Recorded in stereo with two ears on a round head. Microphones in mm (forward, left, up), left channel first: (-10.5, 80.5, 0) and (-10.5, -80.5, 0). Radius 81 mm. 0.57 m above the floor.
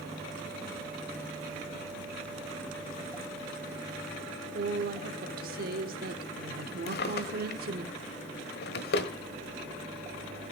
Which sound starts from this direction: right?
A woman speaking, at 4.5 s.